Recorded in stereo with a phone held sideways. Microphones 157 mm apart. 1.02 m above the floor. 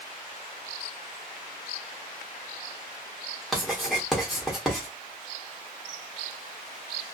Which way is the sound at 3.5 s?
Centre (ahead or behind).